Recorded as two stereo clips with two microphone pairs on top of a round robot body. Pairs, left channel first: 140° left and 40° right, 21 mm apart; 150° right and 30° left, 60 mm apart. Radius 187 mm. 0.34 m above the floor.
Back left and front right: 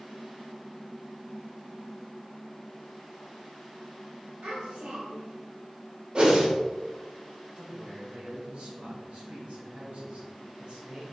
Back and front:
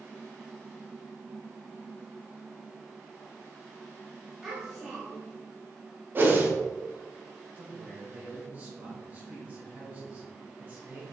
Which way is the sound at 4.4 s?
50° right.